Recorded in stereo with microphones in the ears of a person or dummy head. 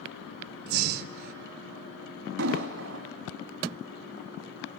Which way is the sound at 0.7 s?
55° right (ahead or behind).